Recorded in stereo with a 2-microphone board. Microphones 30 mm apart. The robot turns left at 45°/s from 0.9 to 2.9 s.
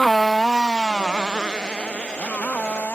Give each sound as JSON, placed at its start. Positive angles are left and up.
{"t": 0.0, "sound": "a motorcycle", "side_deg": 5}